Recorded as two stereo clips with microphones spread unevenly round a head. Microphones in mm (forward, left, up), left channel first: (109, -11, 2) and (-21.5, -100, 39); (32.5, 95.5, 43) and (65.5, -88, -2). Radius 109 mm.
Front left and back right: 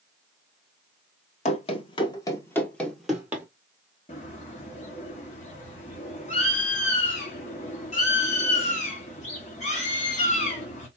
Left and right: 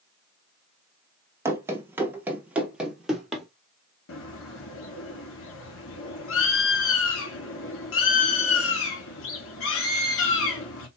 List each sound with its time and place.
1.4 s running footsteps: 10° left, 1.1 m; by 3.5 s 165° left, 1.2 m
4.1 s a bird: 95° left, 1.4 m